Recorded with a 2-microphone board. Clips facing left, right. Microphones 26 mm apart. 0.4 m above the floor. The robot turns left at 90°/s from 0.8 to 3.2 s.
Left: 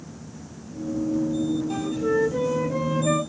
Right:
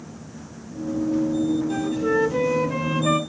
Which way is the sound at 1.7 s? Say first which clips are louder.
Right 2 dB; 15° left.